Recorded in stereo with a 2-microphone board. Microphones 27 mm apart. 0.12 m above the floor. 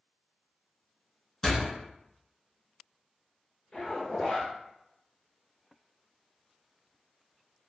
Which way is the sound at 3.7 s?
25° left (ahead or behind).